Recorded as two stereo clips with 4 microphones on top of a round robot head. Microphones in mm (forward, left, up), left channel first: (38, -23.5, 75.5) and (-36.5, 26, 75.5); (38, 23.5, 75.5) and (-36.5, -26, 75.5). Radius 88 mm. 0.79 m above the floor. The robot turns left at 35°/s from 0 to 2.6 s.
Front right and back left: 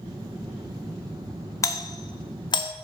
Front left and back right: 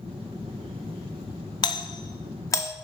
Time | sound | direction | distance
1.6 | a doorbell | 15° left | 1.8 m